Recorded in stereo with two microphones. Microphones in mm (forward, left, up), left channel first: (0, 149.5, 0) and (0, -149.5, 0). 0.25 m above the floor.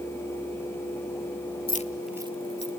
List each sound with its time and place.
1.7 s keys jangling: 30° left (ahead or behind), 0.8 m; by 2.8 s 45° right (ahead or behind), 1.0 m